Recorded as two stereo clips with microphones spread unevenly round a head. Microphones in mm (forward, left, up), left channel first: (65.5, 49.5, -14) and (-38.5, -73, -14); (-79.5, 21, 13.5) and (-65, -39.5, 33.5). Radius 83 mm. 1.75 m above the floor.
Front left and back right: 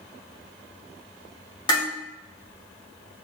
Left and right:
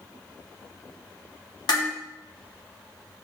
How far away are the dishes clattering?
About 3 m.